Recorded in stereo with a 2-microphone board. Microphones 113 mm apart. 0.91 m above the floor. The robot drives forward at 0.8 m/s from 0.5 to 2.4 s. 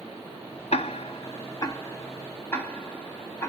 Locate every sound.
0.7 s ticking: 65° left (ahead or behind), 0.5 m; by 3.5 s 20° left (ahead or behind), 1.4 m